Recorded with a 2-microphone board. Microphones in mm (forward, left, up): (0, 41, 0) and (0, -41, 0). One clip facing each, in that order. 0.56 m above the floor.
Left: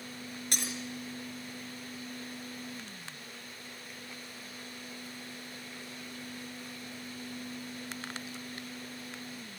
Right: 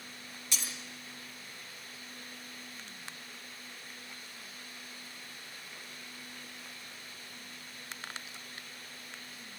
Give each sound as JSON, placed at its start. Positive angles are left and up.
{"t": 0.5, "sound": "breaking glass", "side_deg": 55, "distance_m": 3.5}